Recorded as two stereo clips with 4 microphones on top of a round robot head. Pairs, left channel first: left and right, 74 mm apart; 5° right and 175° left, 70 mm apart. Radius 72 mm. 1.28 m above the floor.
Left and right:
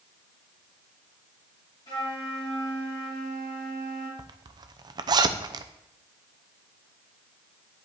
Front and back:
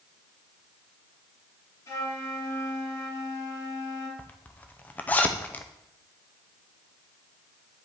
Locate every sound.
1.9 s a flute: 35° left, 2.5 m
4.2 s a zipper: 75° right, 0.6 m